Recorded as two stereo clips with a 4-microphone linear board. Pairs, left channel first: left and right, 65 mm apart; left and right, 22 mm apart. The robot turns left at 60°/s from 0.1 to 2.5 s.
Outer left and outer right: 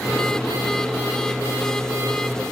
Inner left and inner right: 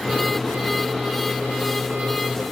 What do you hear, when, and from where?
Only background noise.